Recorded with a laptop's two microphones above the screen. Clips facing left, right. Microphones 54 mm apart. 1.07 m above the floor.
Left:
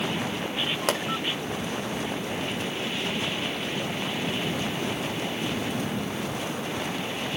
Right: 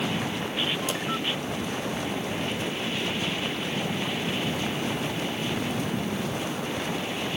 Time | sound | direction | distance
0.9 | a pop | 70° left (ahead or behind) | 1.5 m